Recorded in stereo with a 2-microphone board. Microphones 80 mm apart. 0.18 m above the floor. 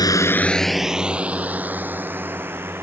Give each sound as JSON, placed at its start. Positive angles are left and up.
{"t": 0.0, "sound": "a drone", "side_deg": 55}